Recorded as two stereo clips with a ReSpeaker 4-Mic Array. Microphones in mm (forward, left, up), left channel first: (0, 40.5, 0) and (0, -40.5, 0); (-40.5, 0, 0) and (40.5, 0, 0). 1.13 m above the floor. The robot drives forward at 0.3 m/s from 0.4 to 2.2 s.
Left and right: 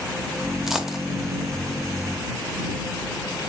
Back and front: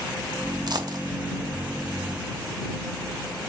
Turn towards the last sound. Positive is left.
turn(degrees=-20)